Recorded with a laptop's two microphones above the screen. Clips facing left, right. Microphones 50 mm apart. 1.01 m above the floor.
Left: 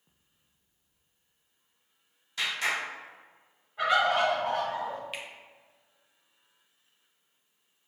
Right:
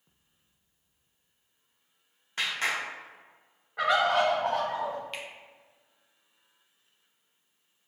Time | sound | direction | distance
2.4 | a clap | 40° right (ahead or behind) | 0.7 m
3.8 | a bird | 75° right (ahead or behind) | 1.1 m
5.1 | a finger snap | 5° left (ahead or behind) | 0.5 m